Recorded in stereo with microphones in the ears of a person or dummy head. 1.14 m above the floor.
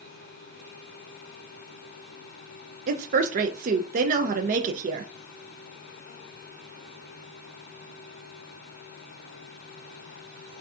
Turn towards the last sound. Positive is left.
turn(degrees=-45)  # may be behind; listen again after turning